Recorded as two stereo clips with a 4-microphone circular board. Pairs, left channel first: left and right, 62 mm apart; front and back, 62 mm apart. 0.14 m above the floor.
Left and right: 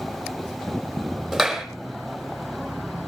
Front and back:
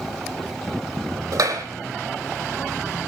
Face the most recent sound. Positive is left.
turn(degrees=180)